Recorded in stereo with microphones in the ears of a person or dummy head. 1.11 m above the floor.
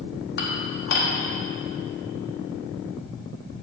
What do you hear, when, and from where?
0.4 s dishes clattering: 55° left (ahead or behind), 1.1 m